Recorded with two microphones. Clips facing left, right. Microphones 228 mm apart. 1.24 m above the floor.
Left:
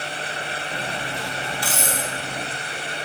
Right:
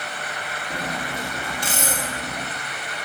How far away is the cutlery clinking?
About 1.2 m.